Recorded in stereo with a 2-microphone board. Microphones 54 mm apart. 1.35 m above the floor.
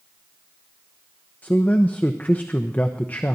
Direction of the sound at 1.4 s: 30° left (ahead or behind).